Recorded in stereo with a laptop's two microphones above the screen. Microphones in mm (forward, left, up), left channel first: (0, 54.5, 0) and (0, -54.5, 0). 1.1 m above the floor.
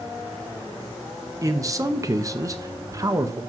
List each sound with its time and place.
1.4 s a man speaking: 30° right (ahead or behind), 1.0 m